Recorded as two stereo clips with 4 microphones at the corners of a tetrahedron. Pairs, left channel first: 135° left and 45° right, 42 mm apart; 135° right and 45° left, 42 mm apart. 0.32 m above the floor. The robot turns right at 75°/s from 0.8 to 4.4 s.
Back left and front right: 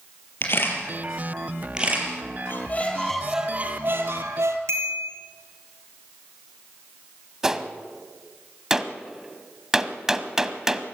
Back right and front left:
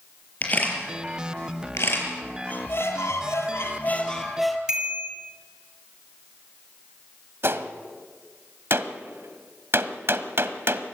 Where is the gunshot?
35° left, 1.1 m.